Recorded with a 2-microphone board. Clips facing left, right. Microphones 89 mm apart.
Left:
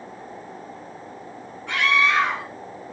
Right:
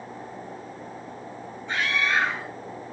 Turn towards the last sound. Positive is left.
turn(degrees=75)  # may be behind; listen again after turning